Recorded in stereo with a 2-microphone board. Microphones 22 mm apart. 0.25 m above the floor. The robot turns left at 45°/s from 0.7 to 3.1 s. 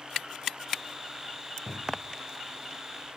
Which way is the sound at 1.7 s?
35° left (ahead or behind).